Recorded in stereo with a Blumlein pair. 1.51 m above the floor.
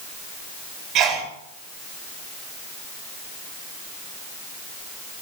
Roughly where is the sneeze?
Ahead right.